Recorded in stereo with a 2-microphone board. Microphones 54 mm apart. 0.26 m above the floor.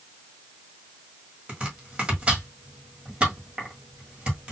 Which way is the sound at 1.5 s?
20° right (ahead or behind).